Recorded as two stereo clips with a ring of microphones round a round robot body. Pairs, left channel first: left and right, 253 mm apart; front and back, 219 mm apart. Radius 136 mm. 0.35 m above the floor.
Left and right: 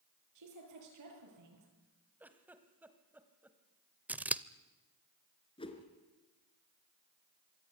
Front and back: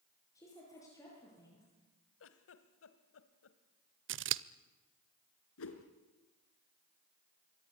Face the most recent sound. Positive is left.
turn(degrees=20)